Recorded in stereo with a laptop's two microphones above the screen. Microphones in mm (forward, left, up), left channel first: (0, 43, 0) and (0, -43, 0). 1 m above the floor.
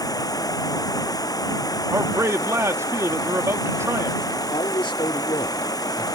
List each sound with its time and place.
0.0 s running water: 45° left (ahead or behind)
1.9 s a man speaking: 35° right (ahead or behind)
4.5 s a man speaking: 75° left (ahead or behind)